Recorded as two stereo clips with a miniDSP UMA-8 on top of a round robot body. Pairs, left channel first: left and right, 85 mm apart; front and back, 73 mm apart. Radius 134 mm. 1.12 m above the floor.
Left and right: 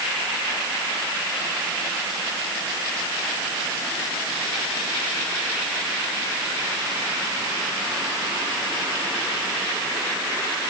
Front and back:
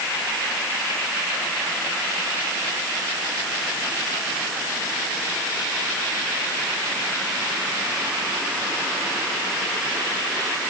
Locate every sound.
Only background noise.